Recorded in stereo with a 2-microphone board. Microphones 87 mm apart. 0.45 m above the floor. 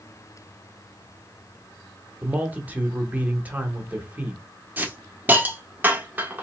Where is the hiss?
20° right (ahead or behind), 0.7 m.